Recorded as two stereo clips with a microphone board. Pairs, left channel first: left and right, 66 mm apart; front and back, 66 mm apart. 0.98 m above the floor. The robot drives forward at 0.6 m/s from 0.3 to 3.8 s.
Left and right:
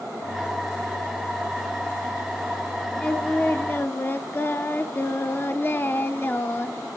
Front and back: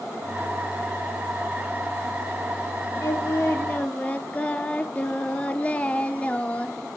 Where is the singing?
25° left, 0.9 m; by 6.9 s 55° left, 0.6 m.